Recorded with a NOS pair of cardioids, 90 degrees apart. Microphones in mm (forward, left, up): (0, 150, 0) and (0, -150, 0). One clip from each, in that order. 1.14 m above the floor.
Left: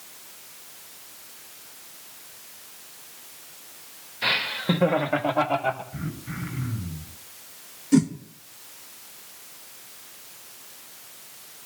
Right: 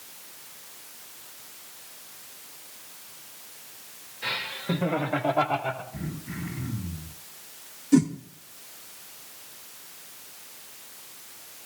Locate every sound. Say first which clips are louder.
4.2 s laughter: left 6 dB; 65° left, 1.5 m; by 5.8 s 10° left, 3 m
5.9 s throat clearing: left 2 dB; 65° left, 7 m
7.9 s a whoosh: even; 15° left, 1.3 m